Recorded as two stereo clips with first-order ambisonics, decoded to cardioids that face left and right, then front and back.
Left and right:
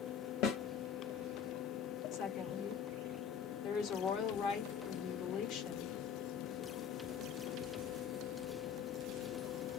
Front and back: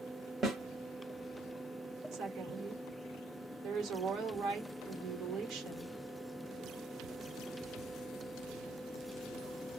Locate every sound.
0.4 s a snare drum: 110° left, 1.3 m
2.1 s a woman speaking: 135° left, 1.4 m